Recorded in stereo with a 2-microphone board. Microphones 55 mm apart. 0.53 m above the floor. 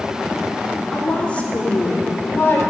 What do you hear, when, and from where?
0.9 s a woman speaking: 10° left (ahead or behind), 1.2 m; by 2.6 s 45° left (ahead or behind), 2 m